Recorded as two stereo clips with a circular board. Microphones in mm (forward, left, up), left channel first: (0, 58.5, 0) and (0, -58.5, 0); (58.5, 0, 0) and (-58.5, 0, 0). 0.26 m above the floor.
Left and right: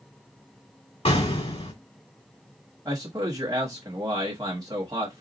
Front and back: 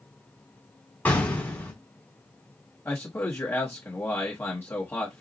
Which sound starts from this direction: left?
An explosion, at 1.1 s.